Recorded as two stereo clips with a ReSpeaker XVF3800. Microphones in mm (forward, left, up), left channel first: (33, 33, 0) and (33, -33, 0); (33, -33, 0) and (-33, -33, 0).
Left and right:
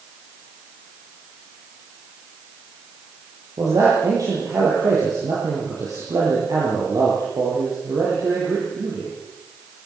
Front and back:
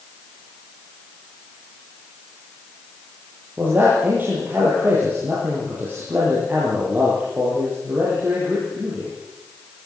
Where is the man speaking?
120° right, 9.5 m.